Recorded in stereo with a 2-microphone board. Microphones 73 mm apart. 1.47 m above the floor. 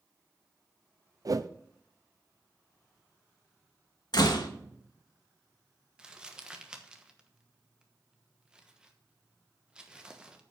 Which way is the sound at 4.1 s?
65° left (ahead or behind).